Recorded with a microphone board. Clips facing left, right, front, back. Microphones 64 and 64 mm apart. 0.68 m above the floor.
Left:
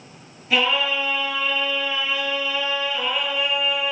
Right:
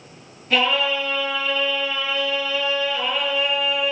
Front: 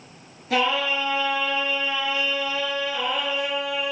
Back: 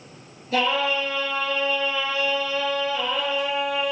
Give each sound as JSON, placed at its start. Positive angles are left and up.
{"t": 0.5, "sound": "singing", "azimuth_deg": 0, "distance_m": 6.5}